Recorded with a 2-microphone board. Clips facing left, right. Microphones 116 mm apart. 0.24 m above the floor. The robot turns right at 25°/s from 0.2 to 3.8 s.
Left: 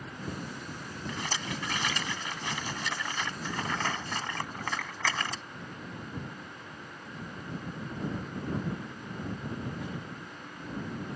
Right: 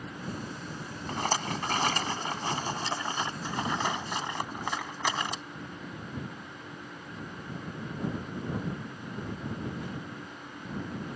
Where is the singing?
No singing in this recording.